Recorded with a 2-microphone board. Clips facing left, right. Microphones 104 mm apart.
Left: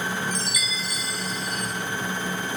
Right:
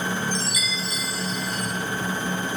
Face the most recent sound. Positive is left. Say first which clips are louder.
# right 2 dB
turn(degrees=-30)  # may be behind; listen again after turning